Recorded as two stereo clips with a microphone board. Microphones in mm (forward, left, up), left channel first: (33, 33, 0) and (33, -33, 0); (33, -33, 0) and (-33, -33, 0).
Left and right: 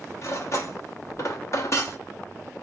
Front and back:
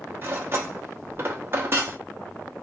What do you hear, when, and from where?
0.2 s cutlery clinking: 130° left, 0.6 m